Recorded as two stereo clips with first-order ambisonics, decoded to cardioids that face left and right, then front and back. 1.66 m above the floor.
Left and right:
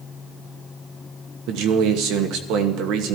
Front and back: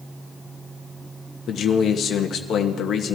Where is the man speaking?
60° right, 1.3 m.